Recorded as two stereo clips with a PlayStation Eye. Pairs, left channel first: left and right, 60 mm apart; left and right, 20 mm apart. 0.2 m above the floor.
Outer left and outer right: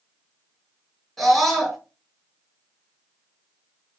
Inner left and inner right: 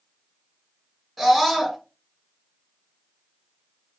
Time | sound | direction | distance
1.2 | a scream | centre (ahead or behind) | 1.5 m